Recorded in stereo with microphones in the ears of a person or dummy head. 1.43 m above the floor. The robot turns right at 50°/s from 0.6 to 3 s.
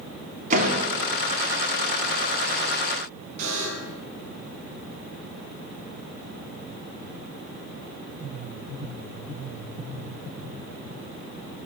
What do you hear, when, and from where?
0.5 s a door slam: 40° right (ahead or behind), 2.5 m; by 0.9 s 25° right (ahead or behind), 2.5 m
3.4 s a buzzer: 40° right (ahead or behind), 4 m